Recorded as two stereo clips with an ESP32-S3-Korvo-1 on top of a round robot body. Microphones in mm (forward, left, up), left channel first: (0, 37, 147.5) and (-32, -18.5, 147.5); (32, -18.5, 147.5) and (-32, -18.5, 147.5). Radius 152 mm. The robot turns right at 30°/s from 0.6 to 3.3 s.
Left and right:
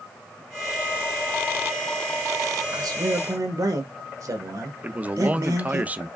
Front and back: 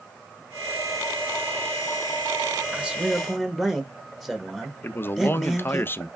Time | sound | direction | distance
2.7 | a man speaking | 110° right | 1.2 m
4.8 | a man speaking | 55° right | 0.6 m